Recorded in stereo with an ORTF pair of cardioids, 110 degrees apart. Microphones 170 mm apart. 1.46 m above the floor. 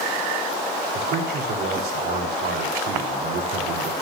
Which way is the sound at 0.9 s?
70° right.